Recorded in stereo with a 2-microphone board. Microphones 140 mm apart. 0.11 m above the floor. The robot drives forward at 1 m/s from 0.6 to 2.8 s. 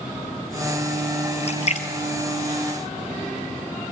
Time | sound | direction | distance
1.4 | a splash | 50° left (ahead or behind) | 2.5 m